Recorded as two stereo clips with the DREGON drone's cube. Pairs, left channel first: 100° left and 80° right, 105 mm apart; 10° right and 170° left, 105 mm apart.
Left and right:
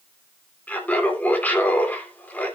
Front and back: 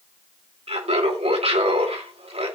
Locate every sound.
0.7 s laughter: 175° left, 3 m